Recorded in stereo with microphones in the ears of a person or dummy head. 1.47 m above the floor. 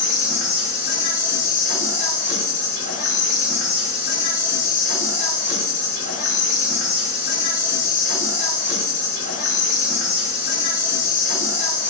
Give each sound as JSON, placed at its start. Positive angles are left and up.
{"t": 0.0, "sound": "an insect", "side_deg": 45, "distance_m": 1.7}